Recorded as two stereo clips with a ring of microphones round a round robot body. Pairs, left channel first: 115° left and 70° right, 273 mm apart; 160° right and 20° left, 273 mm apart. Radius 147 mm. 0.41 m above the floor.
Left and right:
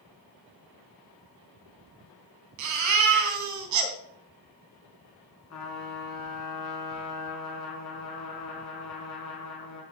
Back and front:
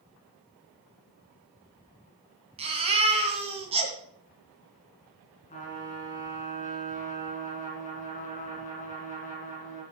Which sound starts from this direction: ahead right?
A baby crying, at 2.6 s.